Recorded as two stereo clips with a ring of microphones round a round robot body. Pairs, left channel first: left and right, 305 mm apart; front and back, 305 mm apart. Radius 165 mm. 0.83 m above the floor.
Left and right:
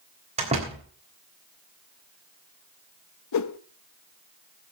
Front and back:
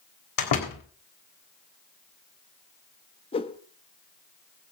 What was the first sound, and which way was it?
A door slam, 15° right.